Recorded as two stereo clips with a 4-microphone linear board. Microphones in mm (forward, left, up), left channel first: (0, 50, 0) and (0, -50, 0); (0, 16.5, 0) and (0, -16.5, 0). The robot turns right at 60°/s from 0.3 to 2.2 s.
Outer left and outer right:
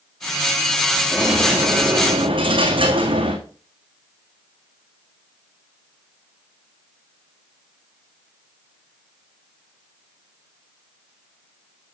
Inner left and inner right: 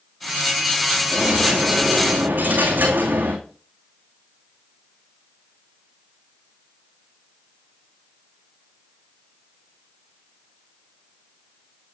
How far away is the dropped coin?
About 2.5 m.